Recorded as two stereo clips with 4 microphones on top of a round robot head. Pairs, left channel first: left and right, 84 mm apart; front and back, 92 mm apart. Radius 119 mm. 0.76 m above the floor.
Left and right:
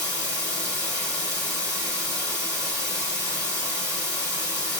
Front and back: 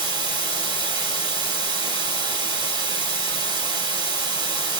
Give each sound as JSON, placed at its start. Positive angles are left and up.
{"t": 0.0, "sound": "running water", "azimuth_deg": 140, "distance_m": 3.5}